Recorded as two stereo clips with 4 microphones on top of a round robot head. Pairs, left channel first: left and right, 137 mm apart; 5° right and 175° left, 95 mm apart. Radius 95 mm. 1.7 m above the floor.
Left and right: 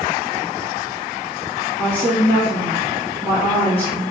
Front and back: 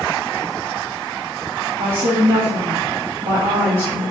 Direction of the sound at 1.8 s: 165° left.